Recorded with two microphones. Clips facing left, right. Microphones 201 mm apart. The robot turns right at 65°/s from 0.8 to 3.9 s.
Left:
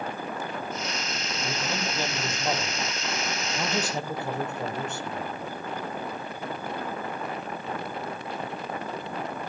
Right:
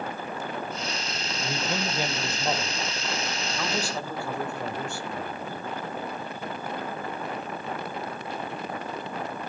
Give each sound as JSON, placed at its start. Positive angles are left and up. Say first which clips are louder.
{"t": 1.4, "sound": "a man speaking", "louder": "right 2 dB", "side_deg": -20, "distance_m": 0.9}